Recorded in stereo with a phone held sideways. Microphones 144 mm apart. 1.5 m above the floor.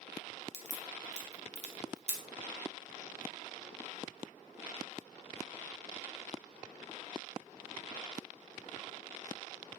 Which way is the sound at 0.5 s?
50° right (ahead or behind).